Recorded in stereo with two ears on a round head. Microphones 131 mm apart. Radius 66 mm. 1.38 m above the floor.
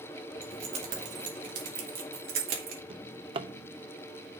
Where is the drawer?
35° right (ahead or behind), 0.7 m.